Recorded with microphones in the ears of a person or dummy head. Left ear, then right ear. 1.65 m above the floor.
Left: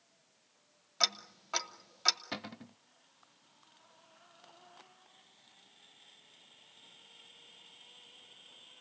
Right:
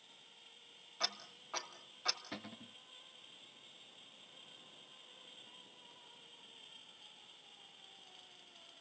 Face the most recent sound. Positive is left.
turn(degrees=30)  # may be behind; listen again after turning